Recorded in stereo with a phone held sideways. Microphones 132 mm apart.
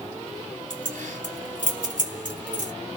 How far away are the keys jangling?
About 2.5 m.